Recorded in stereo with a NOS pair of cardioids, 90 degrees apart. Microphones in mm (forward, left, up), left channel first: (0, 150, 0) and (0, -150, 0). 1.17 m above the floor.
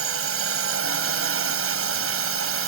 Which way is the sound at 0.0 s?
45° right.